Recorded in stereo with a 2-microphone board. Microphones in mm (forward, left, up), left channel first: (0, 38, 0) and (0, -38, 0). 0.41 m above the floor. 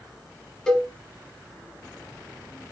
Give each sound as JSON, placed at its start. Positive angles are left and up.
{"t": 0.7, "sound": "a cowbell", "side_deg": 10, "distance_m": 0.7}